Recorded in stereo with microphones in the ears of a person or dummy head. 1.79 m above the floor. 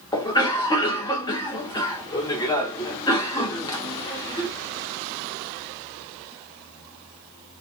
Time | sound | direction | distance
0.1 | a cough | 20° left (ahead or behind) | 1.0 m